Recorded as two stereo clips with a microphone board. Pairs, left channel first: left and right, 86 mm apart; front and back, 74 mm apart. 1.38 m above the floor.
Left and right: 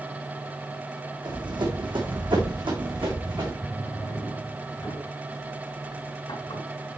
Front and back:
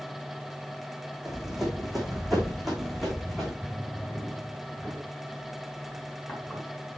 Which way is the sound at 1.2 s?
95° right.